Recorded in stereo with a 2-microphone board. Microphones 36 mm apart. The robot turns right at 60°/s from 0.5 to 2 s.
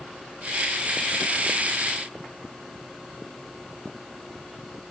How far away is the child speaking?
No child speaking in this recording.